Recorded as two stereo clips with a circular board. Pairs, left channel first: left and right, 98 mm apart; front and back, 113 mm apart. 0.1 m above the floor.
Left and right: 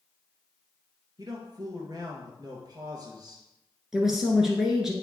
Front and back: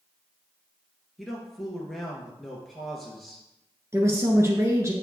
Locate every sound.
1.2 s a man speaking: 90° right, 2 m
3.9 s a woman speaking: 170° right, 1.4 m